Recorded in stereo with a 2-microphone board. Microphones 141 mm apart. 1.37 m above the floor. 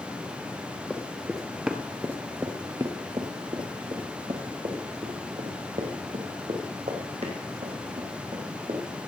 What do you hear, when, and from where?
0.9 s running footsteps: 10° left (ahead or behind), 1.5 m; by 8.8 s 50° right (ahead or behind), 4 m